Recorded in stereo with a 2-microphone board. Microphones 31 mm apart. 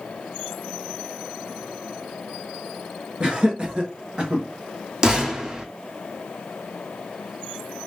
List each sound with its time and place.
3.2 s laughter: 30° right (ahead or behind), 1.5 m
5.0 s a gunshot: 25° right (ahead or behind), 0.9 m